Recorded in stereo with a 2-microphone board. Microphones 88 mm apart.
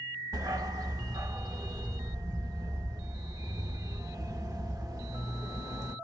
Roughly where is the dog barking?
Right.